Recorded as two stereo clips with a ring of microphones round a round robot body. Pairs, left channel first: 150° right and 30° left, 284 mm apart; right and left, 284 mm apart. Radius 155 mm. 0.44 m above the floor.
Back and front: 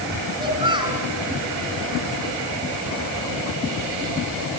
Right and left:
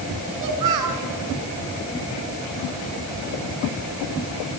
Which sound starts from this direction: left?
A child speaking, at 0.4 s.